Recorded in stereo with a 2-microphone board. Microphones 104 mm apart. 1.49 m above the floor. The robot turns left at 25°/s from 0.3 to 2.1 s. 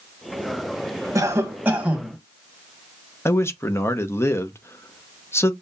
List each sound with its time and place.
1.1 s a cough: 30° right (ahead or behind), 1.4 m; by 2.2 s 10° right (ahead or behind), 1.4 m
3.2 s a man speaking: 25° left (ahead or behind), 0.6 m